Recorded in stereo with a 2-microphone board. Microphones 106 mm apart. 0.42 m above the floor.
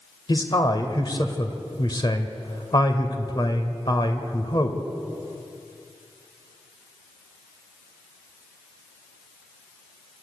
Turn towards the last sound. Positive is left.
turn(degrees=45)  # may be behind; listen again after turning